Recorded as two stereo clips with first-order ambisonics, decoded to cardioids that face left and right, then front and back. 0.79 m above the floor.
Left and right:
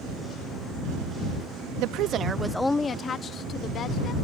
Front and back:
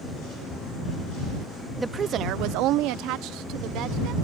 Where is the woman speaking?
95° right; by 4.1 s 145° left.